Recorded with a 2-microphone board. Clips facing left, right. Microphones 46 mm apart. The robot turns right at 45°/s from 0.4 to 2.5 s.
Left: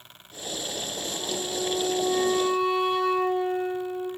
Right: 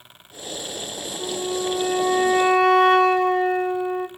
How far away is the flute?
About 2.5 m.